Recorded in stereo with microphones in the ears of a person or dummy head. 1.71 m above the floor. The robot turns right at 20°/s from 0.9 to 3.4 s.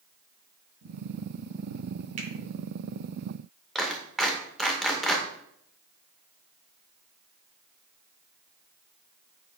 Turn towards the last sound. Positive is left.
turn(degrees=-5)  # may be behind; listen again after turning